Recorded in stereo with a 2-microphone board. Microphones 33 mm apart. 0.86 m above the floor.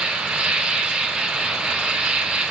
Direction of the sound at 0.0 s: 35° right (ahead or behind).